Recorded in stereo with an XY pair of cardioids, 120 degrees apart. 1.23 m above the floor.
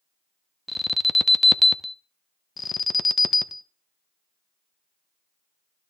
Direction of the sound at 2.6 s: 25° left.